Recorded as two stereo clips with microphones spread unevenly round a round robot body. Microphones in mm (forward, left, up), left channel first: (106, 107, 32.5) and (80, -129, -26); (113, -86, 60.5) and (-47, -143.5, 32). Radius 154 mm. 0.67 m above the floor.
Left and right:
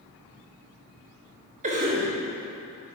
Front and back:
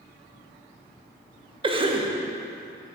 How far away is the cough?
About 0.8 m.